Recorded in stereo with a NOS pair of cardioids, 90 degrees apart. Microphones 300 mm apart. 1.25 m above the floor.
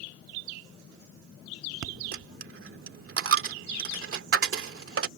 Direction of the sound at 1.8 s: 50° right.